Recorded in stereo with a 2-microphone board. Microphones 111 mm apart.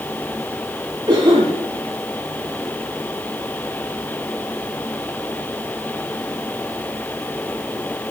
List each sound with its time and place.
1.1 s a cough: 35° right (ahead or behind), 2 m